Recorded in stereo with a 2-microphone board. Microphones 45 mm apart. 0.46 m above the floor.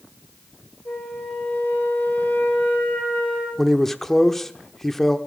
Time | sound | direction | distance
0.8 | a flute | 45° left (ahead or behind) | 10 m
3.6 | a man speaking | 5° left (ahead or behind) | 0.8 m